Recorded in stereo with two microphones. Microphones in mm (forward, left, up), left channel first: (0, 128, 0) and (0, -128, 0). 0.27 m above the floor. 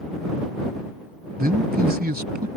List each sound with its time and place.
1.4 s a man speaking: 40° right (ahead or behind)